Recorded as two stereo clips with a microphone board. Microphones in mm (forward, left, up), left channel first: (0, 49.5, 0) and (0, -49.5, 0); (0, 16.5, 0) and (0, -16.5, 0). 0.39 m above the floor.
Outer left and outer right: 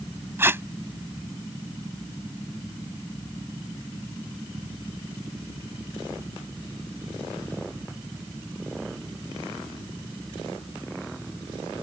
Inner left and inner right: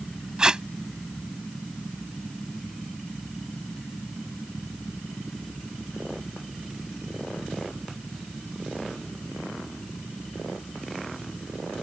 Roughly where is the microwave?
No microwave in this recording.